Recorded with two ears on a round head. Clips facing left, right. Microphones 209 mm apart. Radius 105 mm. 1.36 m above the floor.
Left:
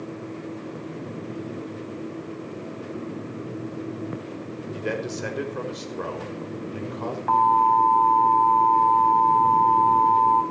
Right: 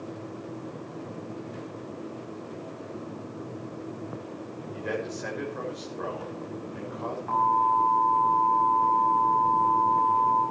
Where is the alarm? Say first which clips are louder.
Left 7 dB; 75° left (ahead or behind), 6 m.